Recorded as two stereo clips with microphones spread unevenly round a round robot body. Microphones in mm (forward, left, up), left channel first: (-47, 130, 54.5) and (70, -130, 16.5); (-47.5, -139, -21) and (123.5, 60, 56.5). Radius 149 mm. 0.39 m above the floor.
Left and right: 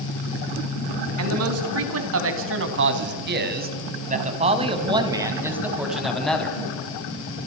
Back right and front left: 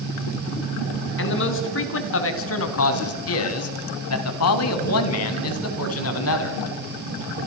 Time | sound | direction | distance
1.2 | a man speaking | 95° right | 4 m